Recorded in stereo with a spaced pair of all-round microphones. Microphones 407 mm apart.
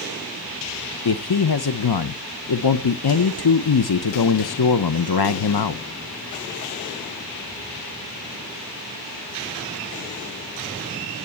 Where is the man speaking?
70° left (ahead or behind), 0.6 m.